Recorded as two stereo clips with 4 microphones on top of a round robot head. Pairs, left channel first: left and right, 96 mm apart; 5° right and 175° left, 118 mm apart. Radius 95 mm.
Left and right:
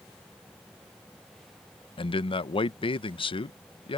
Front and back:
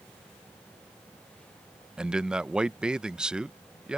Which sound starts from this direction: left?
A man speaking, at 2.0 s.